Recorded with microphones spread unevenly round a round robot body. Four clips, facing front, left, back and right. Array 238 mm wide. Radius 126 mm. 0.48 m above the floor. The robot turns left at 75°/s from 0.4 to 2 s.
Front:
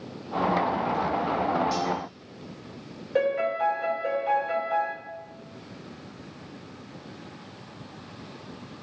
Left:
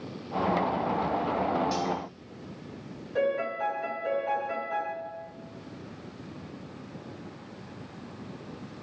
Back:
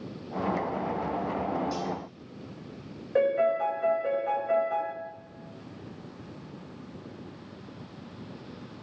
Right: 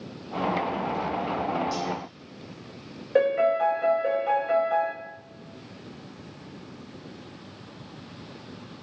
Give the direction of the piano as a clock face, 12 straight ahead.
3 o'clock.